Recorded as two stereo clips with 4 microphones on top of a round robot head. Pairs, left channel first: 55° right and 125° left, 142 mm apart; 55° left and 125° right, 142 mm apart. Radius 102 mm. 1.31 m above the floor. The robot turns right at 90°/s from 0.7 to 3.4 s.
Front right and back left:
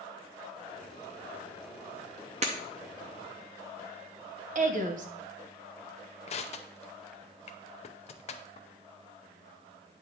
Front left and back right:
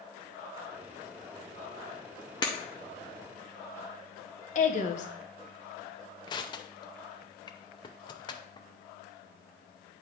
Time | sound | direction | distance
2.4 | breaking glass | 105° left | 0.7 m
4.5 | a woman speaking | 95° left | 1.0 m
6.3 | crushing | 5° right | 0.6 m